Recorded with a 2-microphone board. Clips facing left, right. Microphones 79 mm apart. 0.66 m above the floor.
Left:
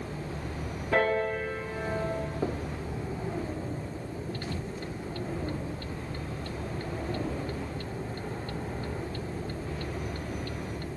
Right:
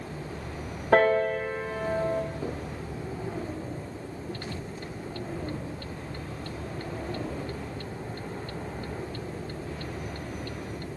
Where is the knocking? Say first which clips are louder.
Left 2 dB; 40° left (ahead or behind), 1.0 m.